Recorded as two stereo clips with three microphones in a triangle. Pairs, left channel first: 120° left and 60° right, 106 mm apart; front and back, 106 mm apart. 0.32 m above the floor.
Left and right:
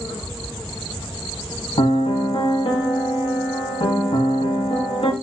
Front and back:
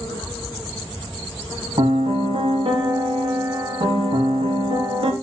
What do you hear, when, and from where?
1.8 s a piano: 145° left, 0.7 m